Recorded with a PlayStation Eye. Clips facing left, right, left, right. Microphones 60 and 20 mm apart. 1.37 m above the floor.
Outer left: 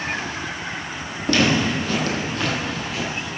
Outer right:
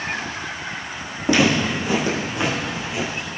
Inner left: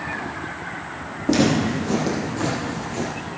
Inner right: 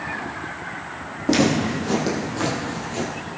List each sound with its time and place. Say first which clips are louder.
1.3 s footsteps: outer right 1 dB, even; 15° right (ahead or behind), 3.5 m; by 3.1 s 20° right (ahead or behind), 2.5 m